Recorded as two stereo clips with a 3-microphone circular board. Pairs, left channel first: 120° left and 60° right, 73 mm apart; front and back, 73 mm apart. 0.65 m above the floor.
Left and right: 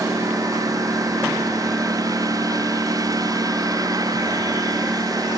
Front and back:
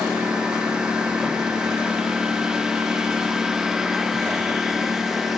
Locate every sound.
0.0 s a lawn mower: 100° right; by 5.4 s 95° right